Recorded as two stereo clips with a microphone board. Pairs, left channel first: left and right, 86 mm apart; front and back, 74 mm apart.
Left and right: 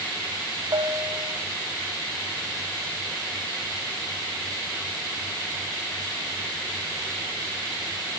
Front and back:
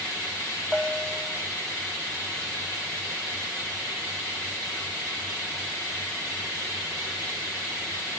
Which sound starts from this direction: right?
A bell, at 0.7 s.